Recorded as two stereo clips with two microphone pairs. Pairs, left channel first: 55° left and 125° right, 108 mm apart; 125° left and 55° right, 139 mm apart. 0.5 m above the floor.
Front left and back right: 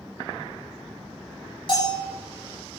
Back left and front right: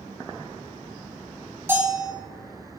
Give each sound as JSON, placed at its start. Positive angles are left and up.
{"t": 1.7, "sound": "a bell", "azimuth_deg": 20, "distance_m": 3.5}